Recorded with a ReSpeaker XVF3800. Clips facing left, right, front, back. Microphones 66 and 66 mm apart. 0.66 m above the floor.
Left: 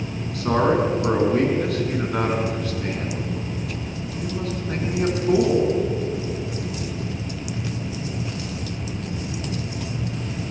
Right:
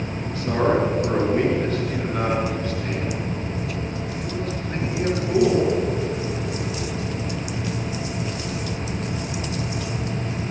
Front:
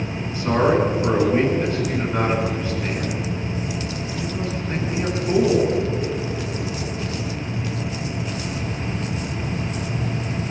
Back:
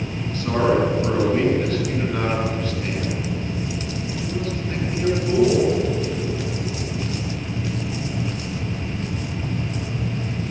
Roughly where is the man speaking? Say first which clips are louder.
Left 1 dB, front 1 dB; left.